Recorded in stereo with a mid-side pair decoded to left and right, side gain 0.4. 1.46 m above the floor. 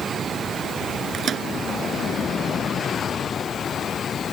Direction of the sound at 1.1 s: 60° right.